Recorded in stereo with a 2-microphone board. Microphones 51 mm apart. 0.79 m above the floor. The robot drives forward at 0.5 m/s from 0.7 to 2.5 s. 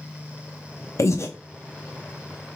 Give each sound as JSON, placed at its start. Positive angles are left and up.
{"t": 1.0, "sound": "breathing", "side_deg": 65, "distance_m": 0.6}